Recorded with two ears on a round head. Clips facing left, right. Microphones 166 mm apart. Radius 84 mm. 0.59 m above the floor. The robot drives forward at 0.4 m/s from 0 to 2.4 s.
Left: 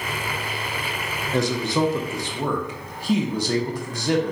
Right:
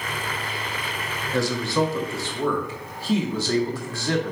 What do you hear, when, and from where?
1.3 s a man speaking: 20° left (ahead or behind), 0.6 m; by 4.3 s 15° left (ahead or behind), 0.7 m